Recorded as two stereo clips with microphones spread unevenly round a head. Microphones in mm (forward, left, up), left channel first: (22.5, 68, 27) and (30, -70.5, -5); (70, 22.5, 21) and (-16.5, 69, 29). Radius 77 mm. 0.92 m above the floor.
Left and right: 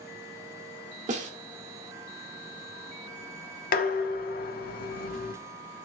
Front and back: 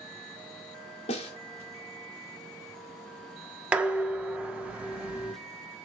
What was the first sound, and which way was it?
A snare drum, 55° right.